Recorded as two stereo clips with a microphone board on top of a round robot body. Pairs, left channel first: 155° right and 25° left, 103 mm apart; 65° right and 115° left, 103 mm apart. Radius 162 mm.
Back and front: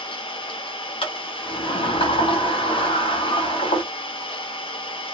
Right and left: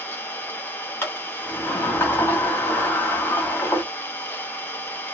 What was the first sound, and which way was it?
An engine running, 135° right.